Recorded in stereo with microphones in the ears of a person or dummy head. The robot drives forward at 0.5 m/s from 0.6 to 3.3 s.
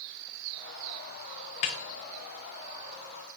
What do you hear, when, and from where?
1.6 s a snare drum: 30° left (ahead or behind), 0.5 m; by 1.8 s 25° left (ahead or behind), 0.5 m